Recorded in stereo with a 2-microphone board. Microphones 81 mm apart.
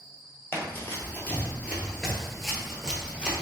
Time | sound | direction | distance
0.5 | running footsteps | 30° left (ahead or behind) | 1.2 m